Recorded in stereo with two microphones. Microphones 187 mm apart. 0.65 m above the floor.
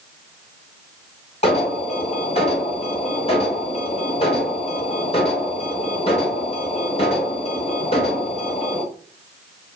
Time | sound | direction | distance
1.4 | an alarm | 35° left (ahead or behind) | 3.5 m